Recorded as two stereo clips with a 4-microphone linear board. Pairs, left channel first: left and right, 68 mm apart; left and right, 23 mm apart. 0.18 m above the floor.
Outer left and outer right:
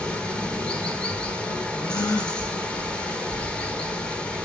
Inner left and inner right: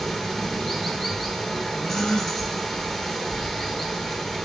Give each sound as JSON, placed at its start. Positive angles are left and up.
{"t": 0.0, "sound": "running water", "side_deg": 10, "distance_m": 1.2}
{"t": 1.8, "sound": "a gasp", "side_deg": 55, "distance_m": 3.0}